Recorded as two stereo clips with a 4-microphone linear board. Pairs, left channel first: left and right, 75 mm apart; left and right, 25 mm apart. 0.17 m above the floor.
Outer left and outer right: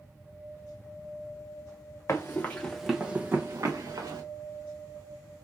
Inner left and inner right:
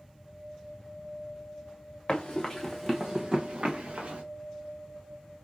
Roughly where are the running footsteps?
Left.